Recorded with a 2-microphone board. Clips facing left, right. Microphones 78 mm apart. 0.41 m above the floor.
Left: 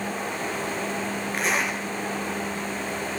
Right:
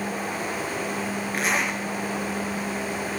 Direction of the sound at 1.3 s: Centre (ahead or behind).